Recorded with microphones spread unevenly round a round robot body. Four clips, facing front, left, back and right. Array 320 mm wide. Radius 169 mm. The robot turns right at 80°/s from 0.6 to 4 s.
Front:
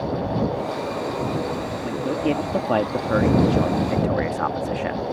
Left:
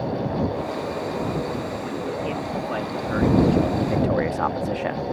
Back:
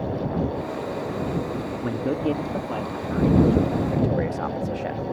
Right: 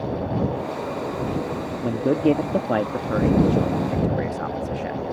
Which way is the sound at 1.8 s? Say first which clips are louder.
Right 8 dB, front 1 dB; 115° right.